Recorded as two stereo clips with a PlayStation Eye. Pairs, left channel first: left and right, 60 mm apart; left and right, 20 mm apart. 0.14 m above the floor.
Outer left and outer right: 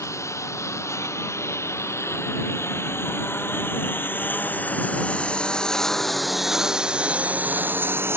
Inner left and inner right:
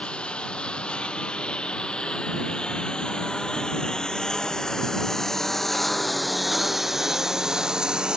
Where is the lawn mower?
55° left (ahead or behind); by 8.2 s 45° right (ahead or behind).